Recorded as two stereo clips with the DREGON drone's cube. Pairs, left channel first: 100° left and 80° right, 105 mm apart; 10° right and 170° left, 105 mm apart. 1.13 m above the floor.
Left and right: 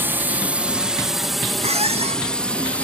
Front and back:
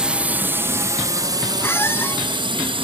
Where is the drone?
120° right; by 2.8 s 175° left.